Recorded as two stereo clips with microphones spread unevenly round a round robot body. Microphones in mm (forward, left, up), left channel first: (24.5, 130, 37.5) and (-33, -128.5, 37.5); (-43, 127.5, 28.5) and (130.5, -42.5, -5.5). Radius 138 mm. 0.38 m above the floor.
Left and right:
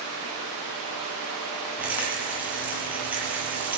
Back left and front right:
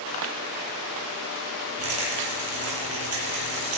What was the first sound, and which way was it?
A rattle, 20° right.